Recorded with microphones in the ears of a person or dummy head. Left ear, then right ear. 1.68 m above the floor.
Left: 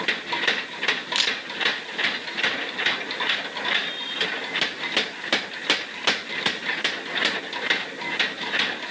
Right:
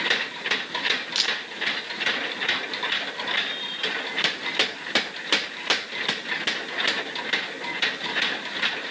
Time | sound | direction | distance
1.1 | a camera shutter | 25° left (ahead or behind) | 0.8 m